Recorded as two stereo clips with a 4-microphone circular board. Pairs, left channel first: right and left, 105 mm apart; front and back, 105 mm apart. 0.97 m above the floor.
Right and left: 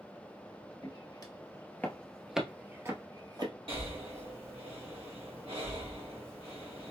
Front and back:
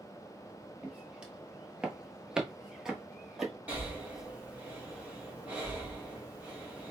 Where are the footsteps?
100° right, 1.3 m; by 3.5 s 95° left, 1.3 m.